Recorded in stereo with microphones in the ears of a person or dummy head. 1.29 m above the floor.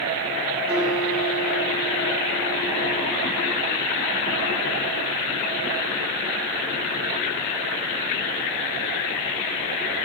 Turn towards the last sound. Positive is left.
turn(degrees=-5)  # may be behind; listen again after turning